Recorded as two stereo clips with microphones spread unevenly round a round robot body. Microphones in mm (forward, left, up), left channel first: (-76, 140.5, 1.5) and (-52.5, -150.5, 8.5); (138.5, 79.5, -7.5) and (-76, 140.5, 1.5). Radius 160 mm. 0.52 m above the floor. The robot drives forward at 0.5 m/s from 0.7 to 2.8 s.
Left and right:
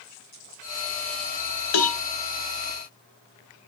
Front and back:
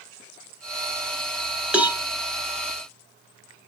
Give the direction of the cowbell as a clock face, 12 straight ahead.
9 o'clock.